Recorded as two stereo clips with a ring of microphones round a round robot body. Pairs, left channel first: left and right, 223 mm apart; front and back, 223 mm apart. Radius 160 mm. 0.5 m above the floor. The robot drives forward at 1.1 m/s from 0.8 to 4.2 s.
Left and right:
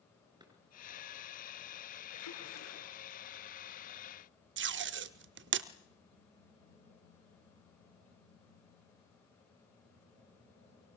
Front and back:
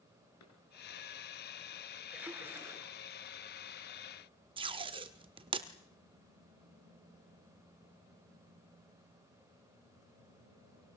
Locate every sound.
0.4 s a drawer: 20° right, 5.5 m
2.1 s a splash: 95° left, 6.5 m; by 2.9 s 105° left, 6.5 m
4.6 s tape being pulled: 115° right, 0.7 m